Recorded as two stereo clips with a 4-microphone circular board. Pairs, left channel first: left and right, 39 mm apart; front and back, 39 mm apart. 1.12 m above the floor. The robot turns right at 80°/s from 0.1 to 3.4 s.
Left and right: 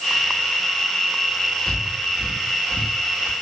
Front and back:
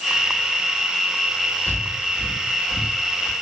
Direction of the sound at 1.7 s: 155° left.